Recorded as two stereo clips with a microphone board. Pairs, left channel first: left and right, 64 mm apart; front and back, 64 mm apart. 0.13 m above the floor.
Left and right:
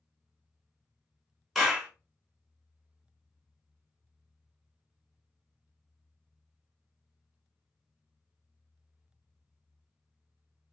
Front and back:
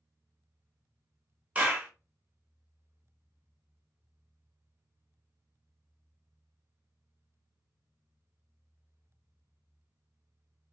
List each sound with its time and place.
1.6 s a clap: straight behind, 0.9 m